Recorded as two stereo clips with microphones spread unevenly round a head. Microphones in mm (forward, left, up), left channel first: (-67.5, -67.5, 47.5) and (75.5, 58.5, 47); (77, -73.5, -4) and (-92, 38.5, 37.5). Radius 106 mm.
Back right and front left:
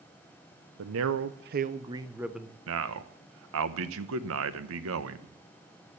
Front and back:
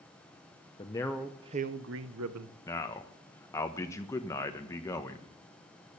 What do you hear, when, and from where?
0.8 s a man speaking: 35° left, 0.8 m; by 2.5 s 135° left, 1.1 m
2.7 s a man speaking: 45° left, 1.2 m